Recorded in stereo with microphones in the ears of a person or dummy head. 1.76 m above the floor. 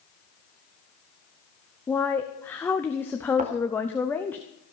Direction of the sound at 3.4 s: 35° right (ahead or behind).